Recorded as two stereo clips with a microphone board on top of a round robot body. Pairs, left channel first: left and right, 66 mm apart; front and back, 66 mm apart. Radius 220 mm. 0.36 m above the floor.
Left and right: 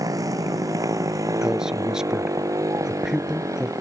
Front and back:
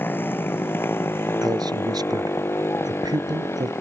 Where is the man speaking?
170° right.